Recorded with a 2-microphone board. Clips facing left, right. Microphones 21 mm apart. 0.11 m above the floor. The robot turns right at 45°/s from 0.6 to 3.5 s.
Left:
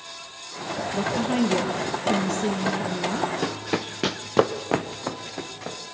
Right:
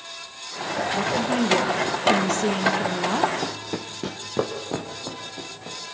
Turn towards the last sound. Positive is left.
turn(degrees=60)  # may be behind; listen again after turning